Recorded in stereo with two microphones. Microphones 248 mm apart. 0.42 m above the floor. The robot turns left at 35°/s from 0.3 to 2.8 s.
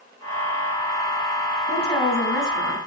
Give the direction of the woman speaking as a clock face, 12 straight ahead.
11 o'clock.